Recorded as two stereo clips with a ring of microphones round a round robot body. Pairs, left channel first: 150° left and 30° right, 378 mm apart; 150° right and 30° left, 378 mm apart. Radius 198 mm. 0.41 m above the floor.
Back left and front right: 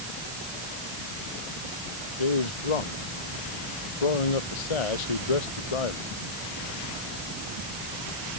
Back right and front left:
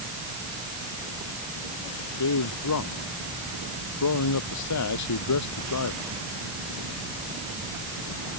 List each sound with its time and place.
2.2 s a man speaking: 160° left